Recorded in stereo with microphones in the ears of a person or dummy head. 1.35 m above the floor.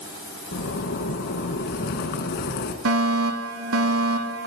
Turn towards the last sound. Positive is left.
turn(degrees=-75)  # may be behind; listen again after turning